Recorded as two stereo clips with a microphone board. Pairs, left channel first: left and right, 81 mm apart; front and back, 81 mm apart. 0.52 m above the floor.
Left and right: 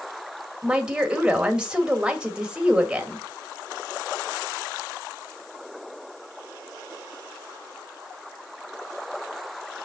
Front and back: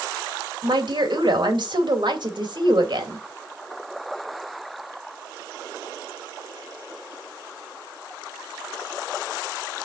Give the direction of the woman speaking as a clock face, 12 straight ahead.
6 o'clock.